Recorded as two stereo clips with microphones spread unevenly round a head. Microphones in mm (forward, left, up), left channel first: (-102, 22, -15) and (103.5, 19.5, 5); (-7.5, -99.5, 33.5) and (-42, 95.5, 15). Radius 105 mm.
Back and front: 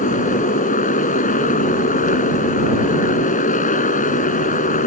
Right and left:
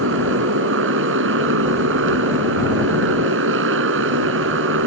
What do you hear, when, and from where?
0.0 s a motorcycle: 125° left